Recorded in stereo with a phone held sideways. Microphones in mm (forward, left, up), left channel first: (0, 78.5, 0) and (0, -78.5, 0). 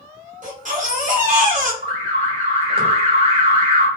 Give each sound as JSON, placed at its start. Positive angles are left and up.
{"t": 0.4, "sound": "a baby crying", "side_deg": -55, "distance_m": 0.8}
{"t": 1.8, "sound": "an alarm", "side_deg": -40, "distance_m": 1.2}